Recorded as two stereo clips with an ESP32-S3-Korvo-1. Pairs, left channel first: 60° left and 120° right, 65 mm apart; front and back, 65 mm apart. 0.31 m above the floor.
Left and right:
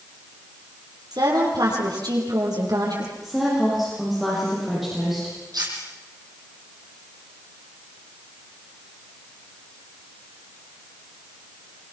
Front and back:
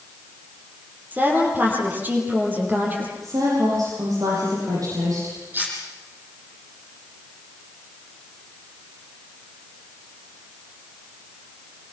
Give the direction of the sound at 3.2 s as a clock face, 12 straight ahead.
7 o'clock.